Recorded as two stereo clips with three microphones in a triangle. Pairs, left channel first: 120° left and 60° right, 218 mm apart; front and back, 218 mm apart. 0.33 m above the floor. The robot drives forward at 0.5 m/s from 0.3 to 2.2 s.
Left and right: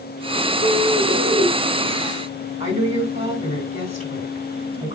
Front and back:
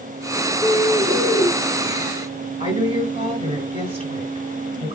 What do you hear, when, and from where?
0.6 s a bird: 60° left, 3.5 m; by 1.5 s 70° left, 3 m
2.6 s a woman speaking: 120° right, 5 m